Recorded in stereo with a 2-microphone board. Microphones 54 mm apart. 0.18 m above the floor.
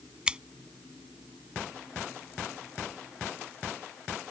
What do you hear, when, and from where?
0.3 s scissors: 20° right (ahead or behind)